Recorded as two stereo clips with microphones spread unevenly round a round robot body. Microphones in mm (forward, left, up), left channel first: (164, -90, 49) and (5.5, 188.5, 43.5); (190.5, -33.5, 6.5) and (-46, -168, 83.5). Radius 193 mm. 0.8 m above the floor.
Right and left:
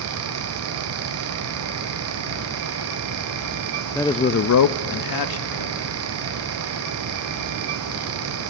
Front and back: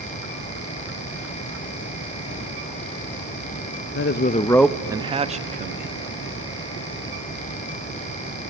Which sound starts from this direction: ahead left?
A man speaking, at 4.0 s.